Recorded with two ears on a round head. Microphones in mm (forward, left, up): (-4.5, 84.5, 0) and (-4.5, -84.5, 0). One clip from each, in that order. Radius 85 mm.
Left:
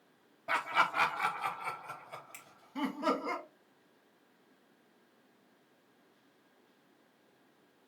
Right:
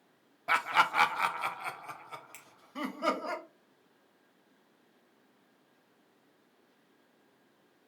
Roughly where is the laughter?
Right.